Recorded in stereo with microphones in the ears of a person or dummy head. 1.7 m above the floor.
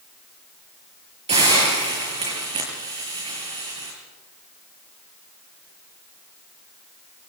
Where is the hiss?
30° right (ahead or behind), 7 m.